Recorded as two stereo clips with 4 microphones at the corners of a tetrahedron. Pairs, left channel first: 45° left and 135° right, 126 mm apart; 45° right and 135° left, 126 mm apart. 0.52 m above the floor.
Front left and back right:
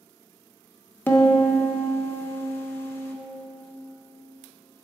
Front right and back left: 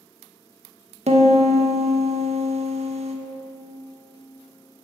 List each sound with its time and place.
1.1 s a piano: 120° left, 0.6 m